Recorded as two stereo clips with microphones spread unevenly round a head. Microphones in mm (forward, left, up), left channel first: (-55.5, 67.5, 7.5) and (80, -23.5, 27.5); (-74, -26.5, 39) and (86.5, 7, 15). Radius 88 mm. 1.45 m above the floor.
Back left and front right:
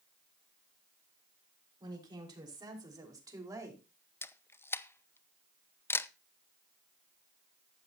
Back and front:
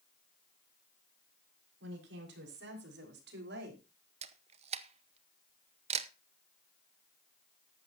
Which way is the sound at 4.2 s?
70° left.